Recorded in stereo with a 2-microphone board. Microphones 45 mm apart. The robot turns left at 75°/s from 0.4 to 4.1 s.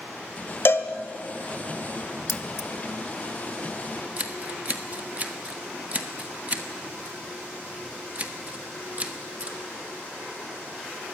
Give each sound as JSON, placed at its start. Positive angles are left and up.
{"t": 0.7, "sound": "a cowbell", "side_deg": 60, "distance_m": 1.3}
{"t": 2.3, "sound": "keys jangling", "side_deg": 65, "distance_m": 0.9}
{"t": 4.2, "sound": "scissors", "side_deg": -35, "distance_m": 1.4}